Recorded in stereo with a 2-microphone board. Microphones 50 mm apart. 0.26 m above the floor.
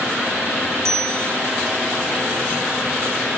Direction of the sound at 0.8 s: 75° right (ahead or behind).